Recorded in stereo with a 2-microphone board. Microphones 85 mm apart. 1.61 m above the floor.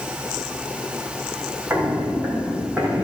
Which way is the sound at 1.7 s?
30° right (ahead or behind).